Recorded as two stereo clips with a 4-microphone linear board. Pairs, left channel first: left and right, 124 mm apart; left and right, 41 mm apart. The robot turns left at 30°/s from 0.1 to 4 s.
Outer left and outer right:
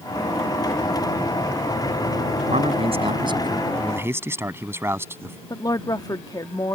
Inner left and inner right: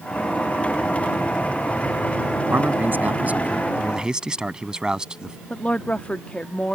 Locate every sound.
2.5 s a man speaking: 115° right; by 5.4 s 160° right
5.5 s a woman speaking: 30° left (ahead or behind)